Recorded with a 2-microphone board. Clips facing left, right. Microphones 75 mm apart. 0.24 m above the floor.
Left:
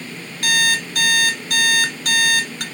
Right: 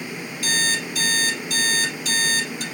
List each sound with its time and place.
0.4 s an alarm clock: 60° left (ahead or behind), 1.4 m